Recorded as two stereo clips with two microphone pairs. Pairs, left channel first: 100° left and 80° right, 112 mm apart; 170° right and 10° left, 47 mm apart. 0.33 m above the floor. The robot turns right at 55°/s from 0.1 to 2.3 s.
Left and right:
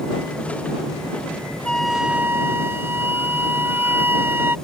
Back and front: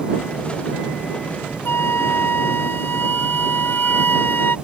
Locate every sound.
1.6 s a flute: straight behind; by 4.6 s 145° right